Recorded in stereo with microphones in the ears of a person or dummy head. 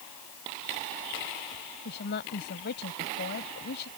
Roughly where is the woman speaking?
Left.